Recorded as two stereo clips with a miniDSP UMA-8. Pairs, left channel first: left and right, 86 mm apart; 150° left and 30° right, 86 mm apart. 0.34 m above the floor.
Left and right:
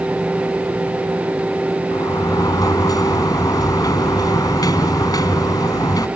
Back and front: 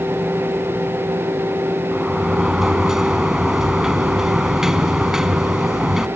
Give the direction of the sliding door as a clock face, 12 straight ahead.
10 o'clock.